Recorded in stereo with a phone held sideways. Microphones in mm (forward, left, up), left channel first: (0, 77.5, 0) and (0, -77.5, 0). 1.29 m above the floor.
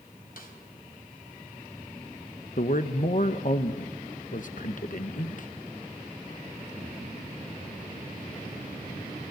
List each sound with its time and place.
0.4 s a snare drum: 65° left (ahead or behind), 3.5 m
2.6 s a man speaking: 55° left (ahead or behind), 0.8 m